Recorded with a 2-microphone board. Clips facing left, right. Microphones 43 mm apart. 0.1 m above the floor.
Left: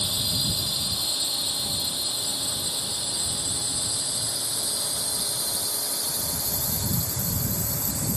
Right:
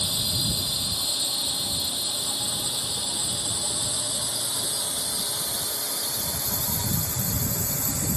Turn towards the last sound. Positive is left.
turn(degrees=-55)  # may be behind; listen again after turning